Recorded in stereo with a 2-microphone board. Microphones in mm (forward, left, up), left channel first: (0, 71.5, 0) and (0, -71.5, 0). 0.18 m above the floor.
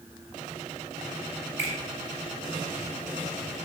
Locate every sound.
1.6 s a finger snap: 55° right (ahead or behind), 1.9 m